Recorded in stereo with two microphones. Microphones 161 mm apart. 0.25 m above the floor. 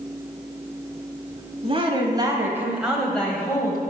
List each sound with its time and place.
1.6 s a woman speaking: 35° right (ahead or behind), 1.7 m; by 3.8 s 25° left (ahead or behind), 1.5 m